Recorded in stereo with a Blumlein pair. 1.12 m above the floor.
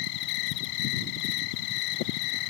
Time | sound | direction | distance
0.0 | an insect | 45° left | ?